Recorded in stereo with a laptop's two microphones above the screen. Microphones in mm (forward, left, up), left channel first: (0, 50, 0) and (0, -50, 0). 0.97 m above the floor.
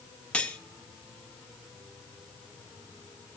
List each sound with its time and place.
0.3 s cutlery clinking: 10° left (ahead or behind), 0.7 m